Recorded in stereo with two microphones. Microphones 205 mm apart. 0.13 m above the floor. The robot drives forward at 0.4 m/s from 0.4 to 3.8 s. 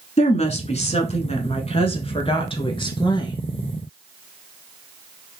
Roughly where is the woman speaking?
Left.